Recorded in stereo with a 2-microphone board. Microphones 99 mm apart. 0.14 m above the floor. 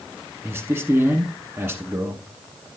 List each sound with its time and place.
0.4 s a man speaking: 25° right (ahead or behind), 1.2 m